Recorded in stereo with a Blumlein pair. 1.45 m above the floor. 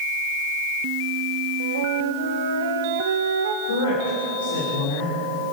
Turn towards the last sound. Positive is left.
turn(degrees=65)